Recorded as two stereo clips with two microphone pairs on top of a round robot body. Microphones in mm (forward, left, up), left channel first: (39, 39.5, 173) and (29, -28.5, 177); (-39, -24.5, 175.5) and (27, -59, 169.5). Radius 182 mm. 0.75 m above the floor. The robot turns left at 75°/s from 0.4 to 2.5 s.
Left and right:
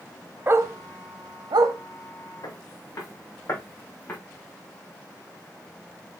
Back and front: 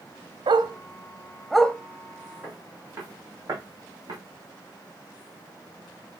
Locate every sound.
0.5 s a dog barking: 35° right, 0.7 m; by 1.8 s 130° right, 0.7 m
2.4 s footsteps: 45° left, 3.5 m; by 4.2 s 10° left, 2.5 m